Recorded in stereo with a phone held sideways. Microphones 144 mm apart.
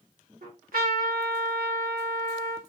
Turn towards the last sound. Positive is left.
turn(degrees=-85)